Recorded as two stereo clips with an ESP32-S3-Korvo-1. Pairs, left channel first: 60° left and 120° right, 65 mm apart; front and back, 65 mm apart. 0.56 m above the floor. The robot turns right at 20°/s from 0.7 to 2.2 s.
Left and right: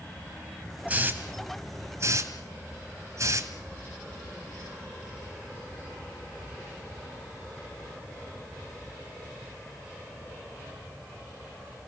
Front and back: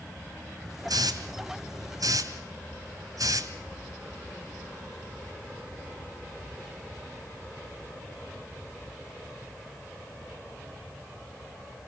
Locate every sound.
0.9 s a hiss: 175° left, 2.5 m; by 3.5 s 160° right, 2.5 m